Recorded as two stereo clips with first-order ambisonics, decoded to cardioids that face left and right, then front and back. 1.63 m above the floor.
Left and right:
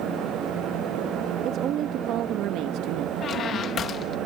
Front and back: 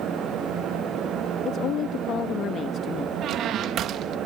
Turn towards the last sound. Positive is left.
turn(degrees=145)